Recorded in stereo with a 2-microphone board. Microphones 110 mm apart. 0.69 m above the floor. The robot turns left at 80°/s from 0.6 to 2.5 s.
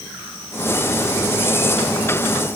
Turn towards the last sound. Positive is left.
No sound to turn to.